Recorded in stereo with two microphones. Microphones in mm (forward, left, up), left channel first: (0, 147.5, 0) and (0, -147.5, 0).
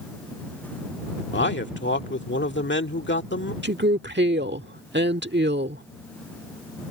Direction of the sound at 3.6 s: 35° right (ahead or behind).